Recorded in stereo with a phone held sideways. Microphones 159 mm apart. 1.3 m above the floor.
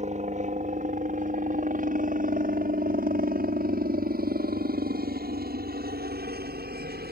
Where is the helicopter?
45° right (ahead or behind); by 7.1 s 70° right (ahead or behind).